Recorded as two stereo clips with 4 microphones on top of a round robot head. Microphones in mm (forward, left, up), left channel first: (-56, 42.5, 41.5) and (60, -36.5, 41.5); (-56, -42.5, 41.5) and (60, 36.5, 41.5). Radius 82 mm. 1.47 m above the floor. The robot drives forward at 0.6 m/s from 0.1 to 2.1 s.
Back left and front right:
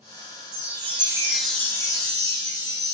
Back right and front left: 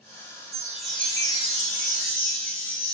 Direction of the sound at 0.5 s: 35° right.